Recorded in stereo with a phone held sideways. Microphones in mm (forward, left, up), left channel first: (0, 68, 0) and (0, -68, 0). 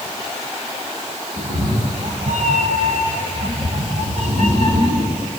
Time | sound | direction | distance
1.4 | a cat meowing | 65° right (ahead or behind) | 3 m